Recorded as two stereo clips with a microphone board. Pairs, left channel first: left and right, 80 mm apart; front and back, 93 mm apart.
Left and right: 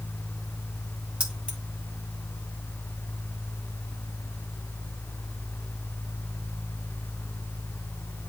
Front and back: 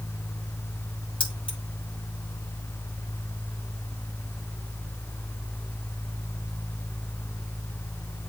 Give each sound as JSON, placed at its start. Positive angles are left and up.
{"t": 1.2, "sound": "keys jangling", "azimuth_deg": -15, "distance_m": 3.5}